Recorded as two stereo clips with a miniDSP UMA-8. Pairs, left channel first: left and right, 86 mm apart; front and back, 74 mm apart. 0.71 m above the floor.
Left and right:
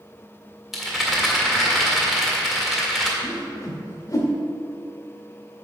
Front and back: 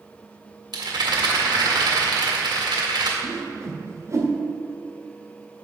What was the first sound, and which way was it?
A rattle, 175° right.